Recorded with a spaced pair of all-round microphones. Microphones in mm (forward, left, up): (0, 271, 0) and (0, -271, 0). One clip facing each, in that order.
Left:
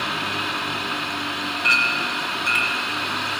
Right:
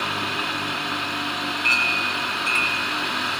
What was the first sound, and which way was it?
A clink, 40° left (ahead or behind).